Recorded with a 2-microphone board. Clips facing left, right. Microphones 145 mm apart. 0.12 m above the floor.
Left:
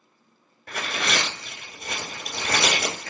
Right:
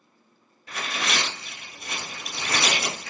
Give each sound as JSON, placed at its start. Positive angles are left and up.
{"t": 0.7, "sound": "tearing paper", "side_deg": 55, "distance_m": 0.9}